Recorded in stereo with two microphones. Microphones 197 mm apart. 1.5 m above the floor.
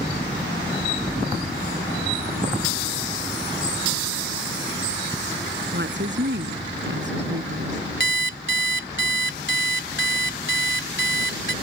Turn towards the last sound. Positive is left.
turn(degrees=-70)  # may be behind; listen again after turning